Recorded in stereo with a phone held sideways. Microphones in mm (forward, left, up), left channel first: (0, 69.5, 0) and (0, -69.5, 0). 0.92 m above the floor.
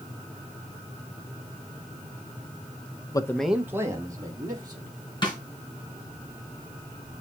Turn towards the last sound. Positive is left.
turn(degrees=35)  # may be behind; listen again after turning